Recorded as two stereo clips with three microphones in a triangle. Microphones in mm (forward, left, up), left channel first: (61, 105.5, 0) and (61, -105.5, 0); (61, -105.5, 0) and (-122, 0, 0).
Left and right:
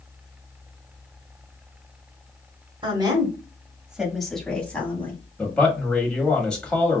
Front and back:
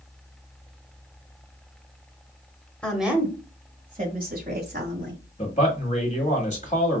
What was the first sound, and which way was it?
A woman speaking, 105° right.